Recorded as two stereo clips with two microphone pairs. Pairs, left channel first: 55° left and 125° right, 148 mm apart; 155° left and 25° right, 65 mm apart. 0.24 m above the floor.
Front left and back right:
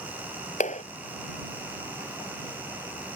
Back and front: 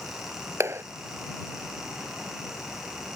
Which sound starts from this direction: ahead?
A clap, at 0.6 s.